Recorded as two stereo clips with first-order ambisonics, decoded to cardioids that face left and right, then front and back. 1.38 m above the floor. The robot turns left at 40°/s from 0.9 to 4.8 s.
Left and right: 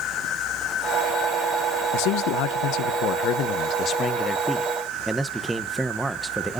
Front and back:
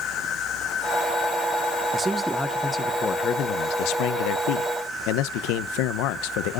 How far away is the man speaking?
About 0.7 m.